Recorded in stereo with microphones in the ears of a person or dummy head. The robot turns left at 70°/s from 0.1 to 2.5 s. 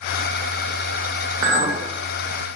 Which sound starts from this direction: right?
A clink, at 1.4 s.